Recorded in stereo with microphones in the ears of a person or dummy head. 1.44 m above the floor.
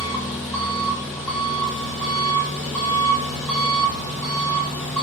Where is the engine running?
Centre (ahead or behind), 1.2 m.